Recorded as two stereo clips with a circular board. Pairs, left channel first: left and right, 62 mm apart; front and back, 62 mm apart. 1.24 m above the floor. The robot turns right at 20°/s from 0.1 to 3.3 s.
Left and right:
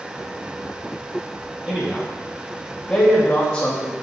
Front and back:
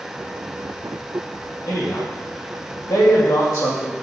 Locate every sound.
1.7 s a man speaking: 15° right, 2.5 m; by 3.9 s 20° left, 2.5 m